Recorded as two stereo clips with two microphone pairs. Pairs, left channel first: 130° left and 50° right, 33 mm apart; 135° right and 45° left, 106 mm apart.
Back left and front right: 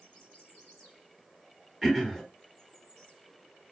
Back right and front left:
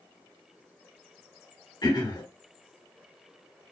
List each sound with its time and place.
1.8 s throat clearing: 130° right, 1.9 m